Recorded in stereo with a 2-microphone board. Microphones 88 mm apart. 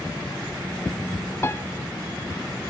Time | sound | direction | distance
1.4 | a piano | 25° left (ahead or behind) | ?